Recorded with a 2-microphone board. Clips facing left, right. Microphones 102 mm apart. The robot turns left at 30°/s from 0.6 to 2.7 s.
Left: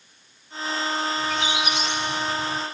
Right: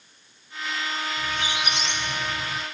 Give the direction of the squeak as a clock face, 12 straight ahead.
1 o'clock.